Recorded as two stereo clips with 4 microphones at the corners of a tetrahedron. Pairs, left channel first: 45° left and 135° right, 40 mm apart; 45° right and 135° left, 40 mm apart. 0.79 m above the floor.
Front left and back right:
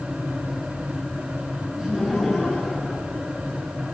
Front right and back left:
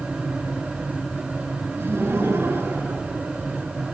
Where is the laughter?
120° left, 7 m.